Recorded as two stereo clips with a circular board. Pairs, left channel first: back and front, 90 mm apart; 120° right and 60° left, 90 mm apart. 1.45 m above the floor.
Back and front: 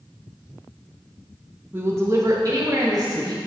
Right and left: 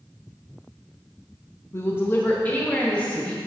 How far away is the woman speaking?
About 0.7 m.